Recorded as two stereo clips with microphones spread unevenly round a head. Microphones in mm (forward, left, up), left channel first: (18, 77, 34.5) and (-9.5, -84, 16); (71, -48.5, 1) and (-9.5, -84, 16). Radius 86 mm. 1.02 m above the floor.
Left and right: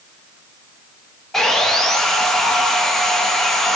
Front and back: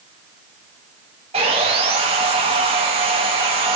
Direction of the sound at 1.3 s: 165° left.